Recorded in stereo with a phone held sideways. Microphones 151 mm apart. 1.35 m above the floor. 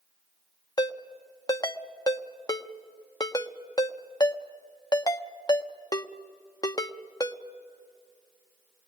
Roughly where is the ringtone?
Left.